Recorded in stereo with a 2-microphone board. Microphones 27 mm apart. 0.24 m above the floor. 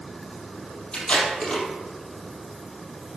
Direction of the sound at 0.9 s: 40° left (ahead or behind).